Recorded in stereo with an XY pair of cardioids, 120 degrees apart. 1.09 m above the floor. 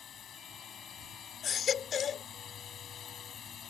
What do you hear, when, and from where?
0.0 s a drone: 50° left
1.4 s a baby crying: 50° left